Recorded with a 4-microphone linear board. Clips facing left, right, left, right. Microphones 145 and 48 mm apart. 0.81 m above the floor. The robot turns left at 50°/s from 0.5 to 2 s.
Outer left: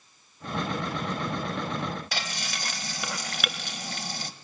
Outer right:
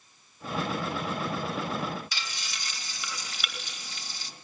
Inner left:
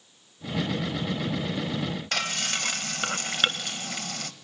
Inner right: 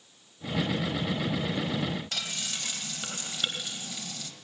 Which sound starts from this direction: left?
Frying, at 2.1 s.